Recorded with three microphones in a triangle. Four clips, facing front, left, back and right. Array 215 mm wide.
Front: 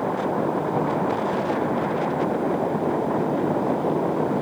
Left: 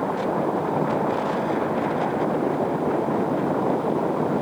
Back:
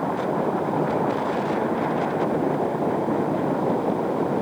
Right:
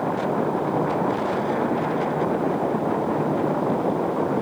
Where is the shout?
I don't hear a shout.